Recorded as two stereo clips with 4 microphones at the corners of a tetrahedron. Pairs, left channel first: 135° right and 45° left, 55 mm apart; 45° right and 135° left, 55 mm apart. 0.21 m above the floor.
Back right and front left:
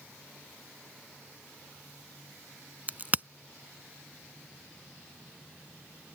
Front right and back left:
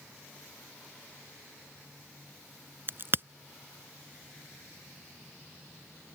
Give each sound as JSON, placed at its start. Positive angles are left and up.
{"t": 2.9, "sound": "a crack", "azimuth_deg": 100}